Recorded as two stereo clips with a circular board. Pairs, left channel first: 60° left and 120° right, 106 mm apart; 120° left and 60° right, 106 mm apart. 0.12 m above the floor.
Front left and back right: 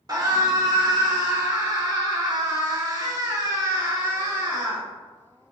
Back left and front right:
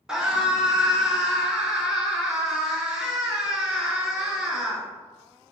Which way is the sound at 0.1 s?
140° right.